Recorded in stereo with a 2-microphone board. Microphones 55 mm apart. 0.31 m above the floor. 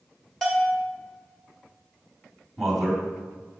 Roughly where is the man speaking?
Centre.